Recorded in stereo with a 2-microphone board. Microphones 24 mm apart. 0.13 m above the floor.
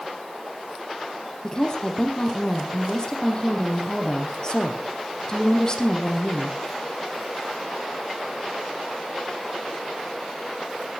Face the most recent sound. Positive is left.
turn(degrees=25)  # may be behind; listen again after turning